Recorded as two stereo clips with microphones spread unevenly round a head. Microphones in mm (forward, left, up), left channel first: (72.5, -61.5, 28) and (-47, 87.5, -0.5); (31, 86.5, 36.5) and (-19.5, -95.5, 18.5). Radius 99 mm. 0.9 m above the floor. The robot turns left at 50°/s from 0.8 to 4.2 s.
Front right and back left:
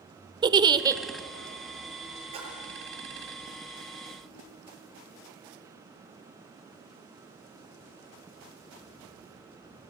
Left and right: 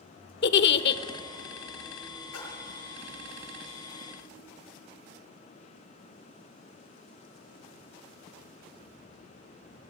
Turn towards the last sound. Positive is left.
turn(degrees=-25)